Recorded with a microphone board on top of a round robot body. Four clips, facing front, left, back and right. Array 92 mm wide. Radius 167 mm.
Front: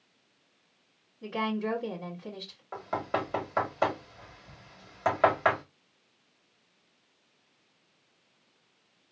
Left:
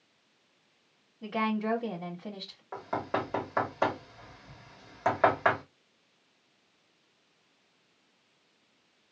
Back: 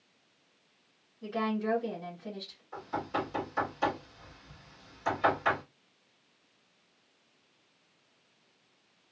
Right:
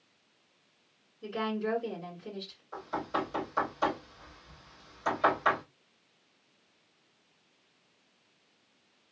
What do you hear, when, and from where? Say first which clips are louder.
1.2 s a woman speaking: left 2 dB, even; 80° left, 1.8 m
2.7 s knocking: left 1 dB, front 3 dB; 45° left, 1.7 m